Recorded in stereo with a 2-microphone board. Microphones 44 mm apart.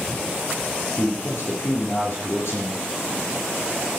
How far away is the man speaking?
About 4 m.